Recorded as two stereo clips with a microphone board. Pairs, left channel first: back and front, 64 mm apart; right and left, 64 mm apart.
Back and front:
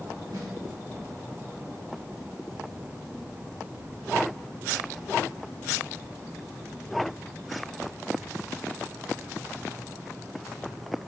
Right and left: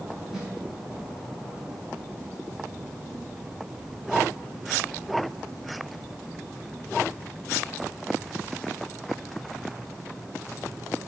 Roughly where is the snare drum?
Ahead.